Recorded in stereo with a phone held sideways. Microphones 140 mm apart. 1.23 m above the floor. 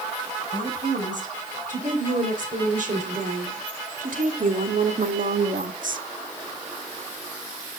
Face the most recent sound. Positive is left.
turn(degrees=-80)